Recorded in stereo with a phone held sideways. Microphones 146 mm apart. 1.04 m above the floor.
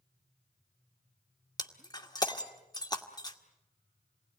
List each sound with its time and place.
1.6 s breaking glass: 30° left (ahead or behind), 1.6 m